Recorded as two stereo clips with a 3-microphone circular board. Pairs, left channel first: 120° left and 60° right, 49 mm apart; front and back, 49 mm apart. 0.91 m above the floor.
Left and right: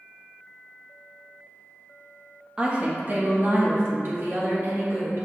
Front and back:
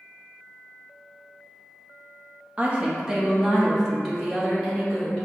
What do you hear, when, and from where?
2.6 s a woman speaking: 125° right, 0.7 m; by 5.3 s 80° right, 2 m